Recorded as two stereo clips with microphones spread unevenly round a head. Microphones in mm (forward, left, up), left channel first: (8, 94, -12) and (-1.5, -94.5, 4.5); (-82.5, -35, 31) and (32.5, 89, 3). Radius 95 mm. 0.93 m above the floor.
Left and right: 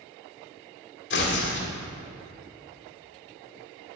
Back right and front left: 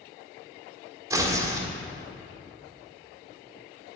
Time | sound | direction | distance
1.1 | tearing paper | 120° left | 1.5 m